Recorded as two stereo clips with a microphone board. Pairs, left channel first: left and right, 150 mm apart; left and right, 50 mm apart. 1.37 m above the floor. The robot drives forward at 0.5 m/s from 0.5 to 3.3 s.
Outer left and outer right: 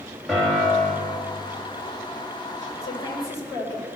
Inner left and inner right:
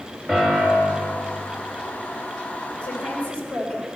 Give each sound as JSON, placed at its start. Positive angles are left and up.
{"t": 0.3, "sound": "a piano", "side_deg": 0, "distance_m": 3.5}
{"t": 2.8, "sound": "a woman speaking", "side_deg": 25, "distance_m": 4.0}